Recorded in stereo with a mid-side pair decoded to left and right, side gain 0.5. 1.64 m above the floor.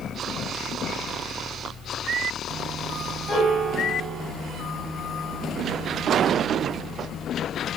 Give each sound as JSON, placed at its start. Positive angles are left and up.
{"t": 0.0, "sound": "a fan", "azimuth_deg": 50, "distance_m": 0.9}
{"t": 3.3, "sound": "a piano", "azimuth_deg": 40, "distance_m": 0.9}